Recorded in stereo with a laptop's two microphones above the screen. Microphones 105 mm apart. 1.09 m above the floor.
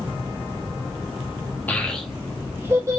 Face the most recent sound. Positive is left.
turn(degrees=-30)  # may be behind; listen again after turning